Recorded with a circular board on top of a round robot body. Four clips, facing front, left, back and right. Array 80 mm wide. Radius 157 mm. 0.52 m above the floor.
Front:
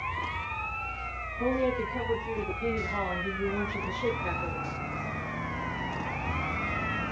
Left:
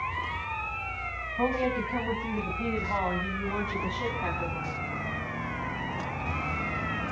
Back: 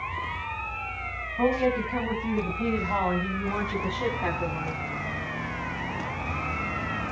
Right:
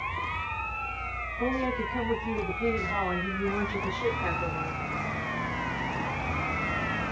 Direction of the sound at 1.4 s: 140° left.